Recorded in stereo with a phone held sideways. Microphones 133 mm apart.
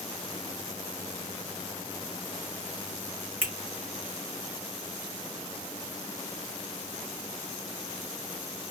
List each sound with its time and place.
3.4 s a finger snap: 15° right (ahead or behind), 1.4 m